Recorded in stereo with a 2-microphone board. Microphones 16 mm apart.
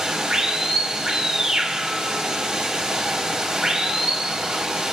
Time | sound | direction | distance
0.0 | running water | 70° right (ahead or behind) | 4.5 m